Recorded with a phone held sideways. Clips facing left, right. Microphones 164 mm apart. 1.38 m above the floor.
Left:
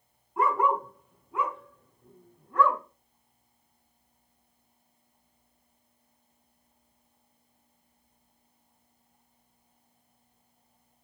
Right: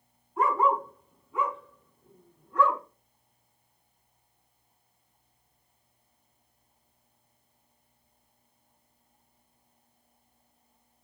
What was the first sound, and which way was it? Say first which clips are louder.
A dog barking: even; 70° left (ahead or behind).